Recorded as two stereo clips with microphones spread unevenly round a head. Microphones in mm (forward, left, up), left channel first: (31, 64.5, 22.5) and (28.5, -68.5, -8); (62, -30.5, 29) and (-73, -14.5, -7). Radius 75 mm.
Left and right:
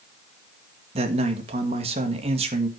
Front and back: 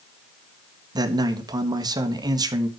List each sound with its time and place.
0.9 s a man speaking: 135° right, 1.6 m